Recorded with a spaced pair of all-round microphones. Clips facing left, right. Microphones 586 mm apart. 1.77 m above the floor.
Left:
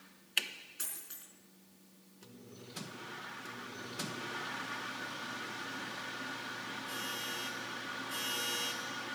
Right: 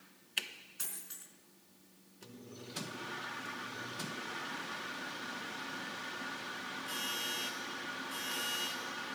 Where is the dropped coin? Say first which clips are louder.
Even; 25° right (ahead or behind), 4.5 m.